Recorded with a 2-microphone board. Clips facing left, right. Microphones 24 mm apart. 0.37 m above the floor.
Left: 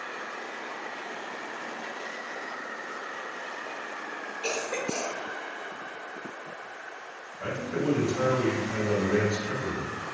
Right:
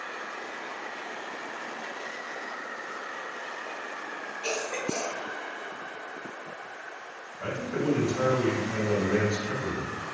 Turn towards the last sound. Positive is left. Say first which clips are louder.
# even
turn(degrees=5)  # may be behind; listen again after turning